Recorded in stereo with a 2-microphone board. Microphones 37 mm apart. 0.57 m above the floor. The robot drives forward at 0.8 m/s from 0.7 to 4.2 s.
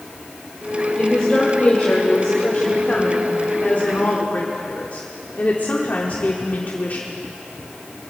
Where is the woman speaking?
25° left (ahead or behind), 3 m; by 7.1 s 50° left (ahead or behind), 1.5 m.